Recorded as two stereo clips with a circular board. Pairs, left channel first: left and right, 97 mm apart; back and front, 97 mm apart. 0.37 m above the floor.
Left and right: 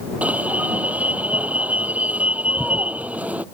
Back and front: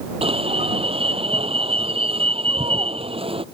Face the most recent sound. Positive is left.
turn(degrees=-15)